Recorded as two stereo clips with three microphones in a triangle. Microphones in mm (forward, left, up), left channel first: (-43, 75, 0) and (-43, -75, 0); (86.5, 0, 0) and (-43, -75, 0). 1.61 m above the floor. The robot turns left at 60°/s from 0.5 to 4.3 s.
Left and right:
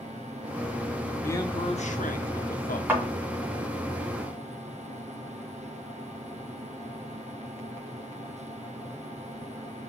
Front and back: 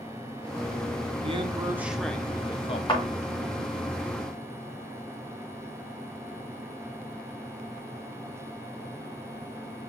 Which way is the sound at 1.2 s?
165° left.